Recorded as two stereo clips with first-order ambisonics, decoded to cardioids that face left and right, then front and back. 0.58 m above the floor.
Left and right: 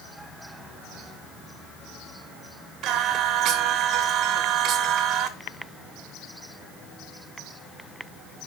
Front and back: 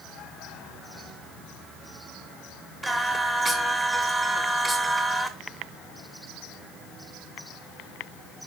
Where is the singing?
105° right, 1.5 m.